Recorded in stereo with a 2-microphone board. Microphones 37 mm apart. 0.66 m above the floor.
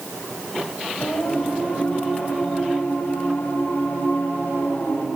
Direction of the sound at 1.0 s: 60° left (ahead or behind).